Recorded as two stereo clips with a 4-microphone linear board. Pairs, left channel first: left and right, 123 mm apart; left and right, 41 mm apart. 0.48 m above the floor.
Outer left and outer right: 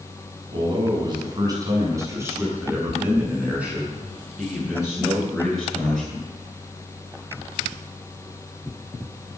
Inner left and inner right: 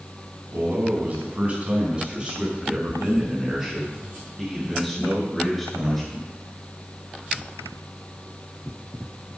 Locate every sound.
0.5 s a man speaking: 40° right (ahead or behind), 4.5 m; by 6.3 s 5° left (ahead or behind), 9 m